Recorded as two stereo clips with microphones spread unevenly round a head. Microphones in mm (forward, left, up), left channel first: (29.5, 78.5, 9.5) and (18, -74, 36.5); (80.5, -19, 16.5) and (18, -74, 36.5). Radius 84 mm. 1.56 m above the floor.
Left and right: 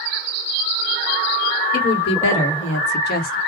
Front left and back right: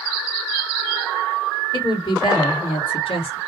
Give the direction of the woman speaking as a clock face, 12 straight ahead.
8 o'clock.